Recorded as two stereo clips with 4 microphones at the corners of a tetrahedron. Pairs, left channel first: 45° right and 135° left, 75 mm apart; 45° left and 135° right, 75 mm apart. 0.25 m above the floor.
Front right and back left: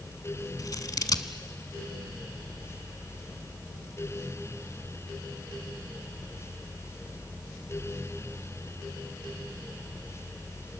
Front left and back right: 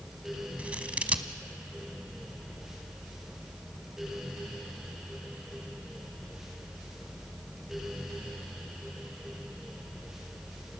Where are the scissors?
65° right, 0.9 m.